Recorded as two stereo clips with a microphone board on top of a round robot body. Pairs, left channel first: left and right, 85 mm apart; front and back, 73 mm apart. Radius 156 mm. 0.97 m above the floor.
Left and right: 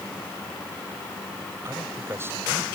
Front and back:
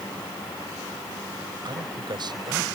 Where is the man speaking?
155° right.